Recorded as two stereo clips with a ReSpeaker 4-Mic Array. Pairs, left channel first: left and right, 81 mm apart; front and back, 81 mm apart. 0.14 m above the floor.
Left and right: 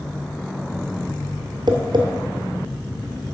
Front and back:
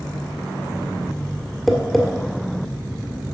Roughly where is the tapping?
Right.